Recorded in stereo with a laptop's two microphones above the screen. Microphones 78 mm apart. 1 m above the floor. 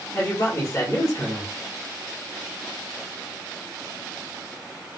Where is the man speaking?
40° left (ahead or behind), 1.7 m.